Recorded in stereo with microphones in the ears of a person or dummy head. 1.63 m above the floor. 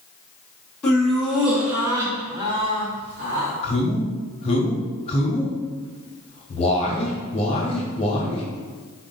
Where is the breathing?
I don't hear breathing.